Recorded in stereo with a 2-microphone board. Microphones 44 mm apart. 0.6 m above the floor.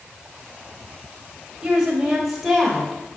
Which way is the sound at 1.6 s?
15° right (ahead or behind).